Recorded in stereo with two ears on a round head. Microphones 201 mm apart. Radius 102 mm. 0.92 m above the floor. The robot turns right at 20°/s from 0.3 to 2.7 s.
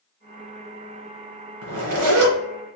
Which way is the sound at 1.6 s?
70° right (ahead or behind).